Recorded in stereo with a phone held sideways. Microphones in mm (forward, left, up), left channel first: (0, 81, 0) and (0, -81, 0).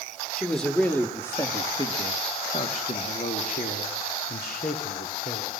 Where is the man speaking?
Centre (ahead or behind), 2 m; by 5.5 s 70° left (ahead or behind), 3 m.